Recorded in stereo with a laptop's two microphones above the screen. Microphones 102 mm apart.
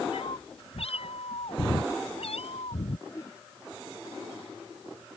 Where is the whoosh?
25° left (ahead or behind).